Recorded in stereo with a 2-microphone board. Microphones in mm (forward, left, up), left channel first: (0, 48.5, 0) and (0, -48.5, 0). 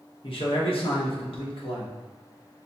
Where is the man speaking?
70° left (ahead or behind), 1.1 m.